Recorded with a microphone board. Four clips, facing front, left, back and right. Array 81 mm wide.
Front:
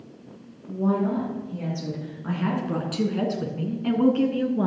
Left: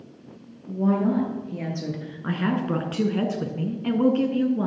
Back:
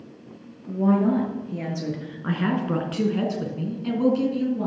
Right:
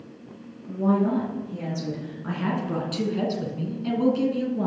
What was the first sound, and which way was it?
A woman speaking, 155° left.